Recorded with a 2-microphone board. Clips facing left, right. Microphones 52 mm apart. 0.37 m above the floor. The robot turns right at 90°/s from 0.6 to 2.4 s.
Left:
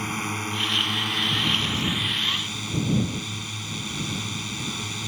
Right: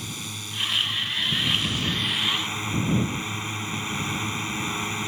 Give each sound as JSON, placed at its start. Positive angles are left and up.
{"t": 0.0, "sound": "a drone", "azimuth_deg": 45}